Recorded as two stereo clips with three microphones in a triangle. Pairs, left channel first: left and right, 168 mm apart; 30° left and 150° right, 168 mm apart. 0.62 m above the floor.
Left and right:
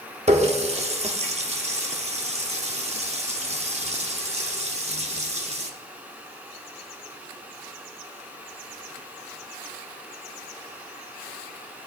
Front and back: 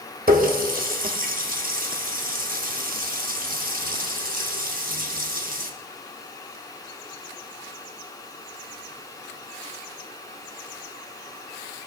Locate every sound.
0.3 s a running tap: 135° right, 0.9 m